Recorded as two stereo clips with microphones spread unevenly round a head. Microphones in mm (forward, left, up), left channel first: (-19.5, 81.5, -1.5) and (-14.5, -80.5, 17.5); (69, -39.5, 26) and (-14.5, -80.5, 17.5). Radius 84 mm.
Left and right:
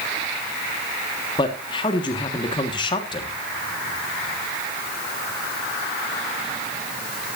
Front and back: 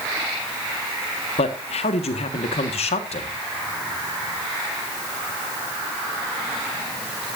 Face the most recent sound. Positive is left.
turn(degrees=25)